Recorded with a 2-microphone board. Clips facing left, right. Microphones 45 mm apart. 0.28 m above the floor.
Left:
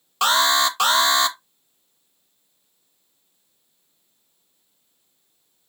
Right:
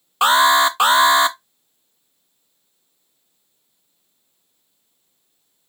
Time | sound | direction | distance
0.2 | an alarm | 20° right (ahead or behind) | 0.6 m